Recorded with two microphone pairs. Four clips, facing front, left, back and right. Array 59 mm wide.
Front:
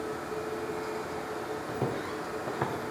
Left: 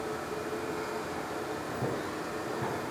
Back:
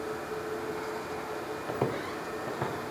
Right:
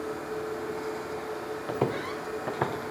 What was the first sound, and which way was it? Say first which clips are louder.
Footsteps: right 8 dB, back 3 dB; 130° right.